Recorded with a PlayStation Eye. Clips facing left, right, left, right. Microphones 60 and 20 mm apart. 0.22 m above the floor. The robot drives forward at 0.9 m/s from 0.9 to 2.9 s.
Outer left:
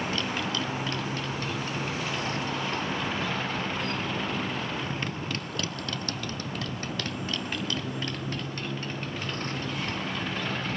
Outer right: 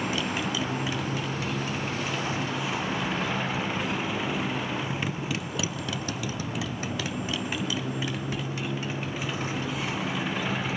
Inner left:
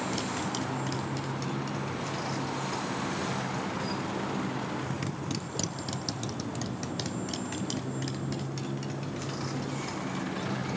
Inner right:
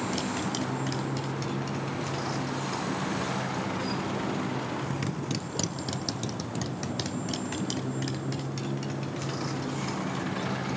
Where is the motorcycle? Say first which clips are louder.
Outer right 1 dB, inner right 2 dB; 10° right (ahead or behind); by 10.8 s 5° right (ahead or behind).